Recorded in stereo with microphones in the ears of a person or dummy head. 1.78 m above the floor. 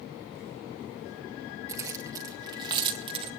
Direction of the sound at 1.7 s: 20° right (ahead or behind).